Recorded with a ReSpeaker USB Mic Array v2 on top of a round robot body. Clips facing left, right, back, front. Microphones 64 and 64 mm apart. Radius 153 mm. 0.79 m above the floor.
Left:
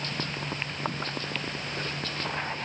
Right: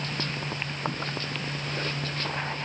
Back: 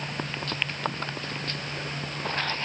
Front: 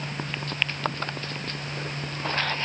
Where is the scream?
I don't hear a scream.